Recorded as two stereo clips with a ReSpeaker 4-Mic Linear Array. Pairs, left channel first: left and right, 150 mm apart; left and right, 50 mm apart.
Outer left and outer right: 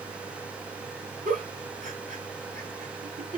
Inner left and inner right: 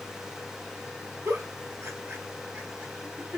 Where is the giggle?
60° right (ahead or behind), 1.8 m.